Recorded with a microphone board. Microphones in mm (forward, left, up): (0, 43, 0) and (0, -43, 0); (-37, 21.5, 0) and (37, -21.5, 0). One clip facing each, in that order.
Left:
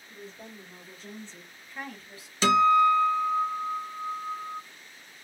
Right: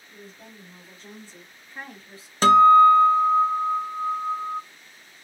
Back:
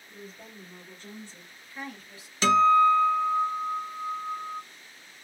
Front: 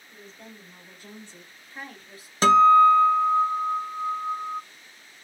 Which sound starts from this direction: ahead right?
A guitar, at 2.4 s.